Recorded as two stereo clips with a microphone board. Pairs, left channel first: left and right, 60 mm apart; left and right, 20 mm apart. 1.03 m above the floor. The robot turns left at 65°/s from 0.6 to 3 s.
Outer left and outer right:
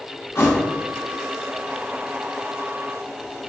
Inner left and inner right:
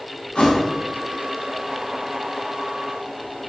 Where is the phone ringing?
I don't hear a phone ringing.